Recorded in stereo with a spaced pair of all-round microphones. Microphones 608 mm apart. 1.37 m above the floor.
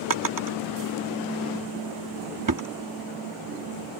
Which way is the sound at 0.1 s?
35° right (ahead or behind).